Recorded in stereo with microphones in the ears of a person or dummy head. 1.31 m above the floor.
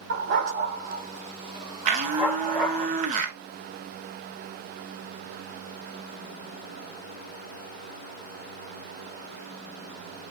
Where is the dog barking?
70° right (ahead or behind), 2.0 m; by 2.9 s 5° left (ahead or behind), 2 m.